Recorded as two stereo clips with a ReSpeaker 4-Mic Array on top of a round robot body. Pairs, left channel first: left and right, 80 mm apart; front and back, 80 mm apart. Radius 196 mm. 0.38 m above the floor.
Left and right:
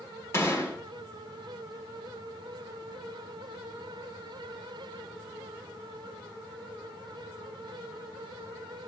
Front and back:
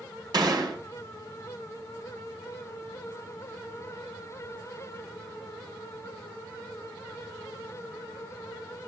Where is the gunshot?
145° left, 5.5 m.